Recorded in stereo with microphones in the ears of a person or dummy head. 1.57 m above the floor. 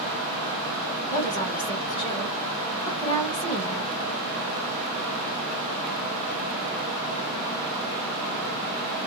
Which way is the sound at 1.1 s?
20° left (ahead or behind).